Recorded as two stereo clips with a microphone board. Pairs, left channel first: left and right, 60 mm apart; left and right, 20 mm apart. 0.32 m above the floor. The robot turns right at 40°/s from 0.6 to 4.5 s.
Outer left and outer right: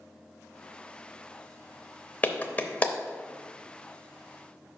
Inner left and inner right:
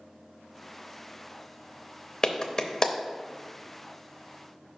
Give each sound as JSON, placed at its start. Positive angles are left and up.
{"t": 2.2, "sound": "a clap", "side_deg": 30, "distance_m": 0.7}